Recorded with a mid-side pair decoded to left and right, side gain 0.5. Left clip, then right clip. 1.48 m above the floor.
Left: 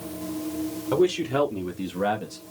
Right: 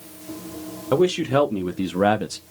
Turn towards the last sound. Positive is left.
turn(degrees=-70)